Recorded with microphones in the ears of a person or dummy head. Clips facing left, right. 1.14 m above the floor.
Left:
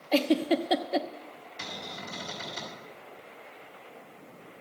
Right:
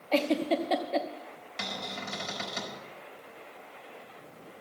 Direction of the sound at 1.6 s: 80° right.